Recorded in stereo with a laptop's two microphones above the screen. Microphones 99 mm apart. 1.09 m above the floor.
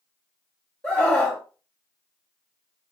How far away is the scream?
About 0.7 m.